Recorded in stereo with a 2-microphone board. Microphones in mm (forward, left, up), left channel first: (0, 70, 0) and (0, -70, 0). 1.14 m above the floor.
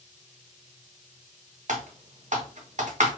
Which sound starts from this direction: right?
Typing on a keyboard, at 1.7 s.